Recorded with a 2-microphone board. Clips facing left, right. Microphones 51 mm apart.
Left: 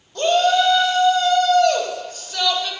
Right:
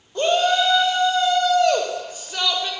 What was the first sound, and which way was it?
A shout, 20° right (ahead or behind).